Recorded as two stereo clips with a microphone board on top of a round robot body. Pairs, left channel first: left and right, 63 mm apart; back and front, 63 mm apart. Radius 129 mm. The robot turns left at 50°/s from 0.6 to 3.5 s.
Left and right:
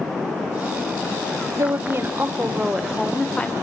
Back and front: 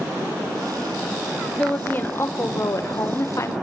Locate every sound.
1.6 s a woman speaking: 110° right, 1.5 m; by 3.5 s 155° left, 1.5 m